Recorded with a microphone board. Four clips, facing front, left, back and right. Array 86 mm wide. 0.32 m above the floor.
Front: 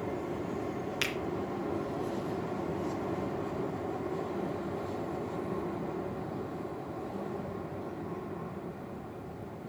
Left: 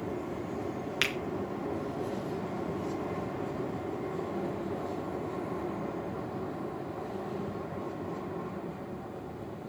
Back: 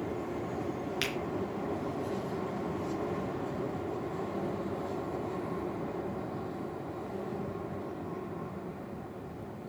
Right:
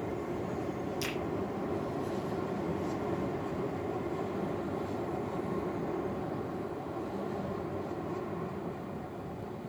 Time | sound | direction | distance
1.0 | a finger snap | 85° left | 4 m